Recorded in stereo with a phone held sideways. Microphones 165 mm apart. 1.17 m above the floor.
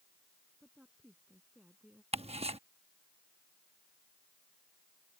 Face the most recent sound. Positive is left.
turn(degrees=-40)  # may be behind; listen again after turning